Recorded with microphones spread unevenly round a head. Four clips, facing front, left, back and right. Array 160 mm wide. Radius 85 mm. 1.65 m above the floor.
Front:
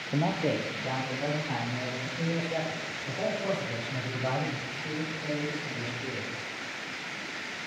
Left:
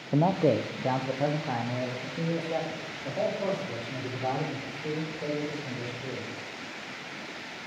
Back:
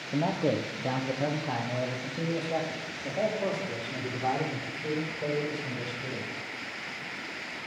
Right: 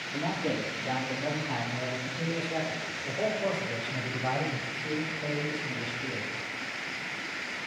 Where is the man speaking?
85° left, 1.0 m; by 6.5 s 140° left, 9 m.